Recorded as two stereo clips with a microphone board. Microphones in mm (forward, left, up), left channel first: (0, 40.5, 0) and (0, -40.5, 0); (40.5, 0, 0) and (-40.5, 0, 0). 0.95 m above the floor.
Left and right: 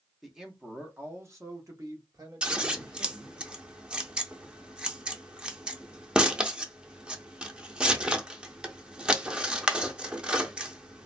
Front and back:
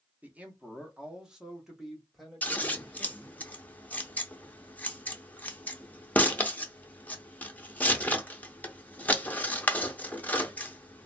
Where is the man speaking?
Straight behind, 0.8 m; by 3.4 s 85° right, 1.7 m.